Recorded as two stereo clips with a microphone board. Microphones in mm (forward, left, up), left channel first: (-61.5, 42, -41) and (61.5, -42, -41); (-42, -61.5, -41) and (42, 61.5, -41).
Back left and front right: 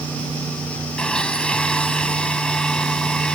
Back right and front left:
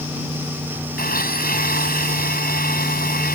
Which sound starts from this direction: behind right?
A blender, at 1.0 s.